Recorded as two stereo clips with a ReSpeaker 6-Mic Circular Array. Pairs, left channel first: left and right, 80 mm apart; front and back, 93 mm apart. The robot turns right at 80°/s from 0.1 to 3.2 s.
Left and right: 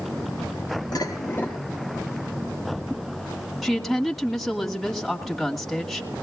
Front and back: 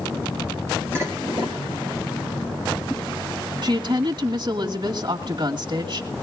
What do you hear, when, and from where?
0.9 s dishes clattering: 115° left, 3 m; by 1.6 s 170° left, 3 m
3.6 s a woman speaking: 175° left, 1.9 m